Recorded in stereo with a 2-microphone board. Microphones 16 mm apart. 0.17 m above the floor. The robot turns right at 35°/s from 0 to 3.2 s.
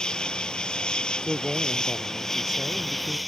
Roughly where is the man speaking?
Behind right.